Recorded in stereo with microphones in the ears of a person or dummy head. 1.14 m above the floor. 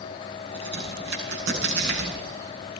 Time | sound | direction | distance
0.5 | a crack | 80° right | 8.5 m